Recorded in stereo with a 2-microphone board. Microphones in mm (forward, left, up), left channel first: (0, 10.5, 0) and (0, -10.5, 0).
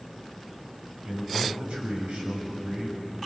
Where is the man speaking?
80° right, 6 m.